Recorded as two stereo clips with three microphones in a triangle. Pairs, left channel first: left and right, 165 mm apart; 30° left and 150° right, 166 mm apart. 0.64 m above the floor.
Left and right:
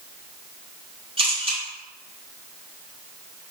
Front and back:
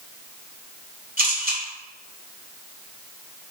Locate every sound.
1.2 s a camera shutter: 140° right, 2 m